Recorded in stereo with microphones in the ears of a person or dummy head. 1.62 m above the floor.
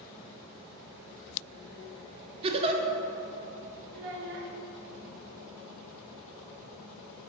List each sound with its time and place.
2.4 s a giggle: 30° right (ahead or behind), 0.5 m
3.9 s a child speaking: 45° right (ahead or behind), 0.7 m